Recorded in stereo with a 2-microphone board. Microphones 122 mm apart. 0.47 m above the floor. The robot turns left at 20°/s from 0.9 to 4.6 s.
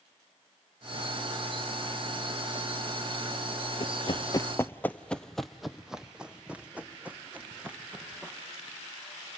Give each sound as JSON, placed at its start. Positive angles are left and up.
{"t": 3.8, "sound": "running footsteps", "side_deg": 45, "distance_m": 0.6}